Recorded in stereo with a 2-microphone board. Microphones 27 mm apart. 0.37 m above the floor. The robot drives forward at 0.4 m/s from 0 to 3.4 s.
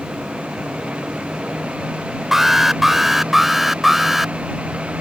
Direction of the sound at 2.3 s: 15° right (ahead or behind).